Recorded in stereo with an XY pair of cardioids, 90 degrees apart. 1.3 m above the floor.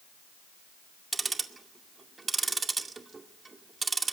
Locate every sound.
1.1 s ticking: 35° right, 2 m